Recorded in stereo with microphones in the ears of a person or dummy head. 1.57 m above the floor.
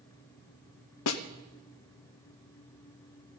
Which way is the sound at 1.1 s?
75° left (ahead or behind).